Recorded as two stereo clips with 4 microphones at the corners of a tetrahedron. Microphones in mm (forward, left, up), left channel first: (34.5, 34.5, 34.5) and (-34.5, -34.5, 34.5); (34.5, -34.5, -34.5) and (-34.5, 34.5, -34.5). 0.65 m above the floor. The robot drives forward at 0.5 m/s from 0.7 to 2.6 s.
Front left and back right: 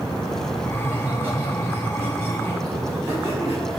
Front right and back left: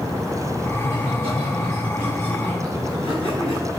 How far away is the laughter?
About 3.5 m.